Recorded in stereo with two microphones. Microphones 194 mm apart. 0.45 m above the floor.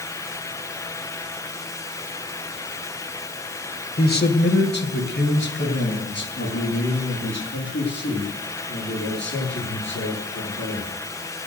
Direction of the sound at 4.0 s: 50° left (ahead or behind).